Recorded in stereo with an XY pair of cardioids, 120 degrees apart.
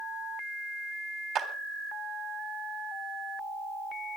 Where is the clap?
50° right, 3 m.